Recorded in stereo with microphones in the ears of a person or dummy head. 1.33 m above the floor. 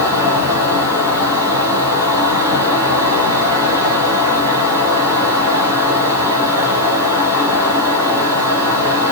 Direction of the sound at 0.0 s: 15° right (ahead or behind).